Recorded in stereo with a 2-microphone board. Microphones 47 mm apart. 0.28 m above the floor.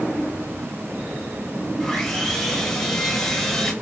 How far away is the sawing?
About 1.2 m.